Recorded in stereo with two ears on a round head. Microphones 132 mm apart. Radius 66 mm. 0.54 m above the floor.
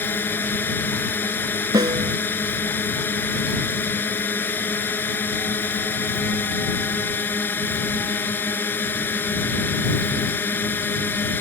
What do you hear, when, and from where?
0.0 s a drone: 15° left (ahead or behind)
1.7 s a snare drum: 25° right (ahead or behind)